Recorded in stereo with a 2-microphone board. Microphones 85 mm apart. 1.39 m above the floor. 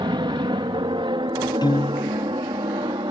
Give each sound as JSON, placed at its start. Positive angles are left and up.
{"t": 0.0, "sound": "an aircraft", "side_deg": -60}
{"t": 1.6, "sound": "a piano", "side_deg": 50}